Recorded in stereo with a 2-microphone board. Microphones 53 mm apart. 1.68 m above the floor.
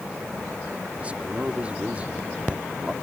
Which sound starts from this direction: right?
A man speaking, at 1.0 s.